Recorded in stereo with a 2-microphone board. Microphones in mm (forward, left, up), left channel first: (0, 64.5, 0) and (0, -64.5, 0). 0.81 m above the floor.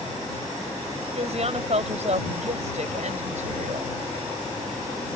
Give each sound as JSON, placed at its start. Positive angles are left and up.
{"t": 1.1, "sound": "a woman speaking", "side_deg": -55}